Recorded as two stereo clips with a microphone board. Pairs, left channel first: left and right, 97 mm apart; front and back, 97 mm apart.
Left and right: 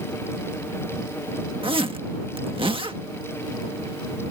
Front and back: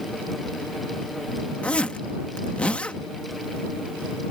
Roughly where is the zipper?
Right.